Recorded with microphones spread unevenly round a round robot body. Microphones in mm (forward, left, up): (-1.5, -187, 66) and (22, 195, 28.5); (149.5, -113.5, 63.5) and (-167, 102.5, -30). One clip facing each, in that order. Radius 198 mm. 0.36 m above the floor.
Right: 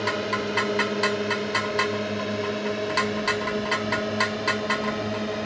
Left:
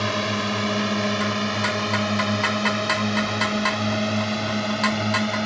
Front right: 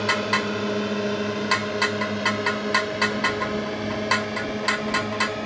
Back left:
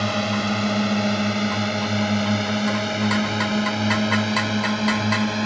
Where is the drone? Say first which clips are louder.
Left 1 dB, back left 2 dB; 120° left; by 5.5 s 140° left.